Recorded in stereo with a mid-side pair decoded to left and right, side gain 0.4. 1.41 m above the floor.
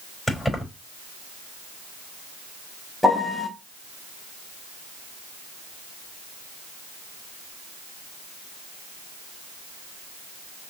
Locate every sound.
0.3 s keys jangling: 20° left, 4.5 m
3.0 s a piano: 10° left, 3 m